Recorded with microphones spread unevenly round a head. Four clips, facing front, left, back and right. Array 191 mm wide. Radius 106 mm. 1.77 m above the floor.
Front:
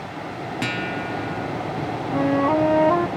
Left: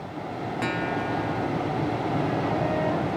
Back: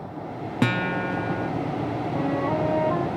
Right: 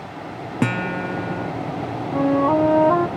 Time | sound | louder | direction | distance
0.6 | a guitar | right 5 dB, back 4 dB | 110° right | ?
2.1 | a flute | right 13 dB, front 7 dB | 60° right | ?